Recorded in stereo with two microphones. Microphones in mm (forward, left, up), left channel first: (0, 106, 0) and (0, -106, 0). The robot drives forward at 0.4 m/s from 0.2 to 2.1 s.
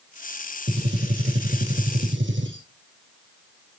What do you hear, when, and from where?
0.7 s a gunshot: 60° right (ahead or behind), 2.5 m